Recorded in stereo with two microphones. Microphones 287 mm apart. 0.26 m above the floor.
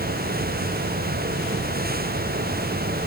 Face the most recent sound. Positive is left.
No sound to turn to.